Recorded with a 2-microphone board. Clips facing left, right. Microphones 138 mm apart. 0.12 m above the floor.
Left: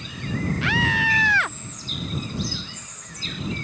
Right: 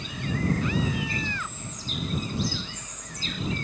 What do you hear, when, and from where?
0.6 s a scream: 75° left (ahead or behind)